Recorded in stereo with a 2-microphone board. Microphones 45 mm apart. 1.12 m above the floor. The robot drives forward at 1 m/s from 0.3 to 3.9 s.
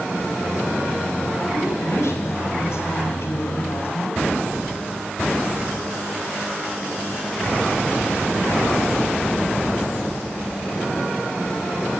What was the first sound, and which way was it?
A woman speaking, 75° left (ahead or behind).